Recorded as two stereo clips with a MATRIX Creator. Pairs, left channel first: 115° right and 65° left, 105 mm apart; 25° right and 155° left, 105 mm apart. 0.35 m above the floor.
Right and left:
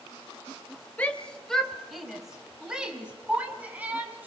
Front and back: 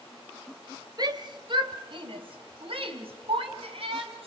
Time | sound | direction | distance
1.0 | a shout | 175° left | 1.8 m